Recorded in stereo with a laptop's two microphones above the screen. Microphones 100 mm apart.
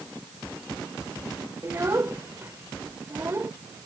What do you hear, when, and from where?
1.6 s a child speaking: 25° right (ahead or behind)